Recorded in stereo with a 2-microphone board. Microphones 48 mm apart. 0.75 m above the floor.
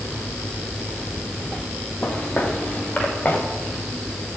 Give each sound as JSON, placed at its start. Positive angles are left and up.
{"t": 2.0, "sound": "footsteps", "side_deg": 35, "distance_m": 4.5}